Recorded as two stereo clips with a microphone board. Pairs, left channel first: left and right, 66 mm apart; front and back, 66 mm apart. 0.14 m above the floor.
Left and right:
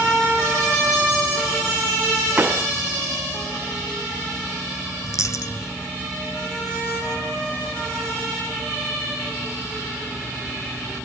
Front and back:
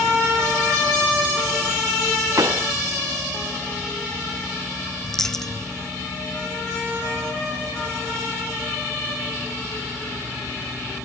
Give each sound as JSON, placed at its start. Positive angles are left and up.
{"t": 2.4, "sound": "a pop", "azimuth_deg": -150}
{"t": 5.0, "sound": "a dropped coin", "azimuth_deg": 85}